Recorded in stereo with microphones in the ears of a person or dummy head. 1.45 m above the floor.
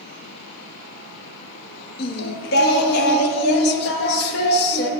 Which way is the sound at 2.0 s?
55° left (ahead or behind).